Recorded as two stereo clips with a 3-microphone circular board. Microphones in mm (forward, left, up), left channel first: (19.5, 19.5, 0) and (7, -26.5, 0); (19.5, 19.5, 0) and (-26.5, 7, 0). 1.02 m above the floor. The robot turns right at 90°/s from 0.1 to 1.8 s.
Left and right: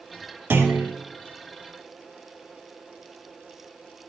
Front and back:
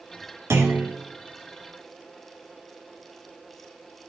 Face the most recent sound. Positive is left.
turn(degrees=-35)